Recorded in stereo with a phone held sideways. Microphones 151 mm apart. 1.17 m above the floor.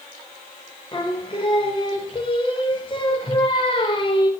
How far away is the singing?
About 1.0 m.